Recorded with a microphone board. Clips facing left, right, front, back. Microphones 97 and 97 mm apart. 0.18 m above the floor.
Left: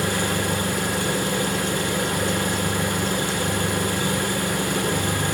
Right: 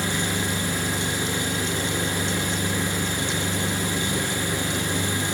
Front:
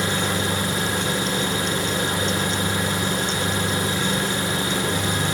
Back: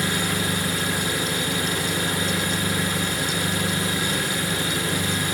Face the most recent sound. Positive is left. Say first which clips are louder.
# left 3 dB, front 2 dB
turn(degrees=60)